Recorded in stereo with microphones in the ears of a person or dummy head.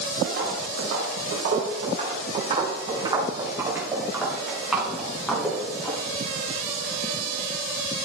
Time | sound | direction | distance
0.2 | footsteps | 65° right (ahead or behind) | 3 m